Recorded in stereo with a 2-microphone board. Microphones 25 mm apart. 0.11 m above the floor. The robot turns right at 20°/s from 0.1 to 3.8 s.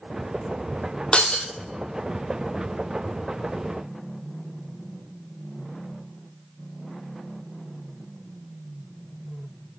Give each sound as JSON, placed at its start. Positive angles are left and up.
{"t": 1.1, "sound": "breaking glass", "side_deg": 45, "distance_m": 1.3}